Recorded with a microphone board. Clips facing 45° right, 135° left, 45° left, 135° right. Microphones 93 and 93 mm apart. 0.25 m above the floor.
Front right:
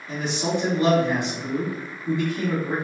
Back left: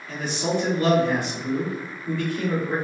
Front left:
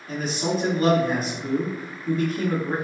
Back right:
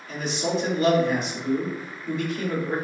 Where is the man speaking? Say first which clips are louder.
Even, front left 1 dB; 20° left, 1.4 m.